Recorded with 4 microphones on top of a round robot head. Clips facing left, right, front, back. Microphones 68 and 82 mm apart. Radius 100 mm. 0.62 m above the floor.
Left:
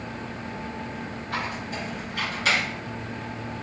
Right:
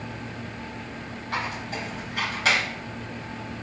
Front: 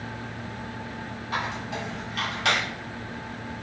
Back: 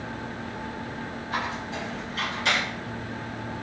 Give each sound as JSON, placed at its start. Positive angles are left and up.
{"t": 1.3, "sound": "a squeak", "azimuth_deg": -40, "distance_m": 1.3}